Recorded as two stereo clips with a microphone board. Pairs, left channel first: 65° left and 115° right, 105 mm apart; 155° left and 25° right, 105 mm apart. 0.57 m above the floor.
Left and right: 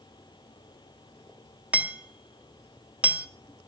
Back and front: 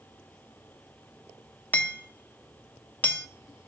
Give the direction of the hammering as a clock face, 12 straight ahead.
6 o'clock.